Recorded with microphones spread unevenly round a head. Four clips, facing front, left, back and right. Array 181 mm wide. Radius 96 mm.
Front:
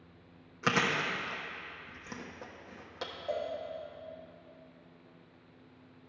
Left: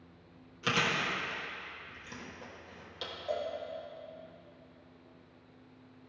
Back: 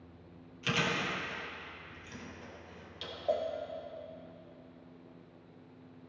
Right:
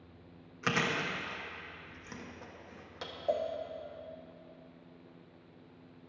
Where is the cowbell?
135° right, 0.8 m.